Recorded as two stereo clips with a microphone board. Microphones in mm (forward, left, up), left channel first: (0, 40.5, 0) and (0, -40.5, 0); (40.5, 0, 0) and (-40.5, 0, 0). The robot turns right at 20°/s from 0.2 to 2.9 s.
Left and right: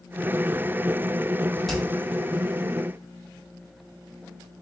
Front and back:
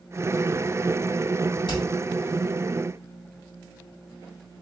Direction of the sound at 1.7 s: Straight ahead.